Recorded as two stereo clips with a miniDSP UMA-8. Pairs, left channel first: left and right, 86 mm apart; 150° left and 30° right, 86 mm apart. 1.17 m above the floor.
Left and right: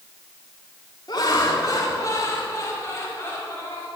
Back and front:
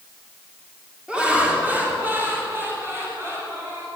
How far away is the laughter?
About 2.5 m.